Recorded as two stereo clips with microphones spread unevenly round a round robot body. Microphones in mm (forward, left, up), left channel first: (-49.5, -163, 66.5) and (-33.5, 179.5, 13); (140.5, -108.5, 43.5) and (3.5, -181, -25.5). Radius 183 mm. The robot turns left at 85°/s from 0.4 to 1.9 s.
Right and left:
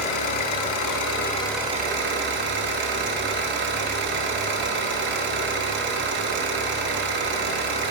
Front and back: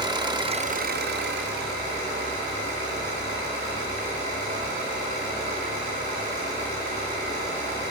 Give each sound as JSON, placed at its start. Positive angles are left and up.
{"t": 0.0, "sound": "an engine running", "azimuth_deg": -85, "distance_m": 0.9}